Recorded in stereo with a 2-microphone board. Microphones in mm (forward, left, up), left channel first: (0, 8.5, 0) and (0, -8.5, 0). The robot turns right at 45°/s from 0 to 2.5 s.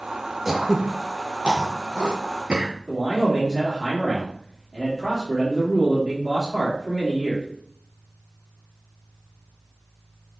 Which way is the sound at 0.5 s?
15° right (ahead or behind).